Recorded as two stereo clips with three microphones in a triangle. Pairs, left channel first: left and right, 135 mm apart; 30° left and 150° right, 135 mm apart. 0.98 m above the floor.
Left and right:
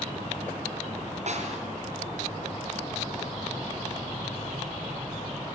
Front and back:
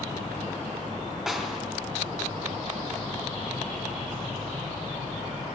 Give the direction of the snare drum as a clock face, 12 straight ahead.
2 o'clock.